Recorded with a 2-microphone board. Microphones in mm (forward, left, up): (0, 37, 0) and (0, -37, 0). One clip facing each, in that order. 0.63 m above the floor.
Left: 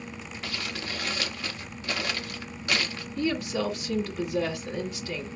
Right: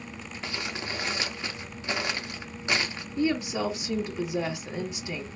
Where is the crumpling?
20° right (ahead or behind), 0.7 m.